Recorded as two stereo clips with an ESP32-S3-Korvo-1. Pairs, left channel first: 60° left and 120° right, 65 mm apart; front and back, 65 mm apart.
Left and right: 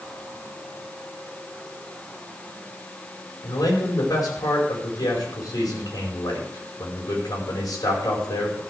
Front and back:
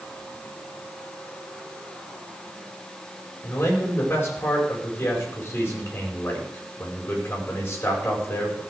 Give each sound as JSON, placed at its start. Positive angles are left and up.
{"t": 3.4, "sound": "a man speaking", "azimuth_deg": 50, "distance_m": 5.0}